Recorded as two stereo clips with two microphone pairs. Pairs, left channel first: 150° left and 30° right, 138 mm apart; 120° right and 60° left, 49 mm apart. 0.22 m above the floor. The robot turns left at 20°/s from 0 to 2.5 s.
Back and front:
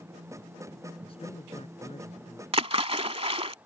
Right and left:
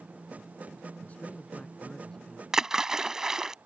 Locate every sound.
1.0 s a man speaking: 170° right; by 2.4 s 160° left
2.5 s a splash: 10° right